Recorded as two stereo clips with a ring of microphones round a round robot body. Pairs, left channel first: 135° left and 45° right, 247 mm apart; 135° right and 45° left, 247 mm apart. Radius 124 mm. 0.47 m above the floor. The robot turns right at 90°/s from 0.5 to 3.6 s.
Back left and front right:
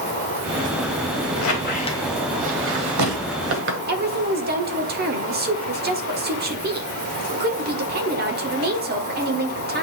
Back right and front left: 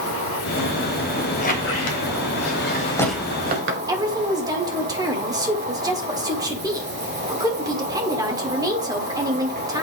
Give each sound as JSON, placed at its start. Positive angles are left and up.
{"t": 0.0, "sound": "an insect", "azimuth_deg": 80, "distance_m": 3.5}
{"t": 1.4, "sound": "a squeak", "azimuth_deg": 155, "distance_m": 1.3}
{"t": 3.9, "sound": "a woman speaking", "azimuth_deg": -25, "distance_m": 1.2}